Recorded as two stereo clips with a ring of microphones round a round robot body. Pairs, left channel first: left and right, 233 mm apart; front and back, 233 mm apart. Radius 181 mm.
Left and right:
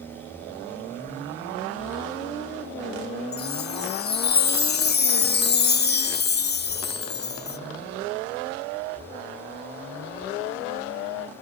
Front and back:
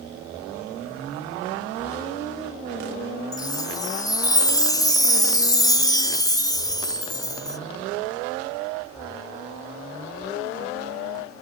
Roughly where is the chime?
Left.